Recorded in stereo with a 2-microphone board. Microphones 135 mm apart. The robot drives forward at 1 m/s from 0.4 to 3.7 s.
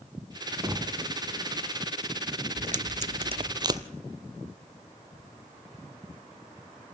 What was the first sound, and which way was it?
Knocking, 25° right (ahead or behind).